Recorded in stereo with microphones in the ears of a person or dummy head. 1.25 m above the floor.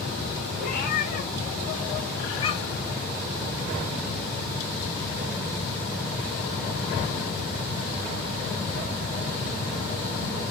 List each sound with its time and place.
0.6 s a cat meowing: 55° left (ahead or behind), 2 m; by 2.9 s 15° left (ahead or behind), 1.3 m